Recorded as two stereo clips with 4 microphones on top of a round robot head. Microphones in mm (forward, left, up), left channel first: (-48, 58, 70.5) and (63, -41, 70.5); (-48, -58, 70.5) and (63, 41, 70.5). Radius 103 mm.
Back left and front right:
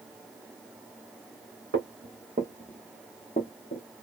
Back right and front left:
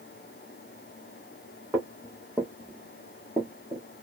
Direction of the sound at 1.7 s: 35° right.